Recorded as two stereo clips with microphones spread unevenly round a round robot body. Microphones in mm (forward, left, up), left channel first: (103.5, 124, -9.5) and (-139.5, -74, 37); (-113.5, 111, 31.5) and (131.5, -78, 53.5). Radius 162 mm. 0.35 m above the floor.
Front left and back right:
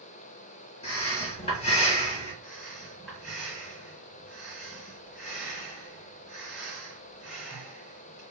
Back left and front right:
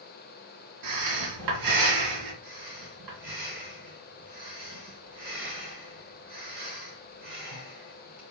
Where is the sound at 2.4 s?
50° right, 2 m.